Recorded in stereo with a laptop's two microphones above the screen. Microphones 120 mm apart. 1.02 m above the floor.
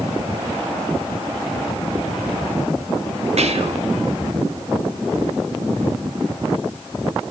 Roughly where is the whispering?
Right.